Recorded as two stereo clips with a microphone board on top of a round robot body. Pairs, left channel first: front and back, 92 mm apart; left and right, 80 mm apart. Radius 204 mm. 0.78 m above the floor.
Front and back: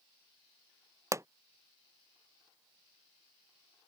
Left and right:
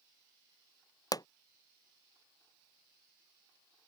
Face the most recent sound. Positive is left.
turn(degrees=125)